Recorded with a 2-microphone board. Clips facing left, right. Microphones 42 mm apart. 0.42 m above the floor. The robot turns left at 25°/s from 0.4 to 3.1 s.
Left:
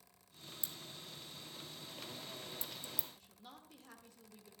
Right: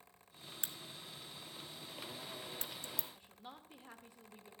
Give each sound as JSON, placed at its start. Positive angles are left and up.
{"t": 0.6, "sound": "a crack", "side_deg": -55, "distance_m": 0.7}
{"t": 3.1, "sound": "a woman speaking", "side_deg": -20, "distance_m": 1.1}